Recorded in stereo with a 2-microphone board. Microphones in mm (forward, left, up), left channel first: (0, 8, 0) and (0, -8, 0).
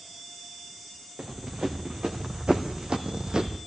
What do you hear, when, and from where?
1.2 s running footsteps: 80° right, 2 m; by 3.6 s 60° right (ahead or behind), 0.9 m